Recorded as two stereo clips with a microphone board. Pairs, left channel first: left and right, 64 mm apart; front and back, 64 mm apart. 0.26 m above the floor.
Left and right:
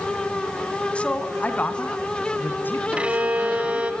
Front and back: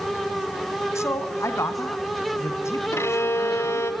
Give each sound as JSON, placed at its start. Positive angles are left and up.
{"t": 0.9, "sound": "a man speaking", "azimuth_deg": 25, "distance_m": 2.0}
{"t": 2.9, "sound": "a violin", "azimuth_deg": -25, "distance_m": 1.9}